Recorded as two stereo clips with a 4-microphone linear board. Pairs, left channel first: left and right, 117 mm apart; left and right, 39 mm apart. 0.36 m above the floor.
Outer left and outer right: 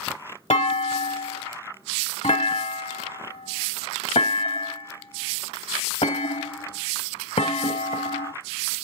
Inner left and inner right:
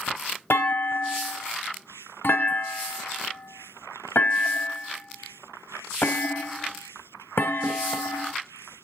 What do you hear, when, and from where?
0.5 s a clunk: 70° left (ahead or behind), 1.1 m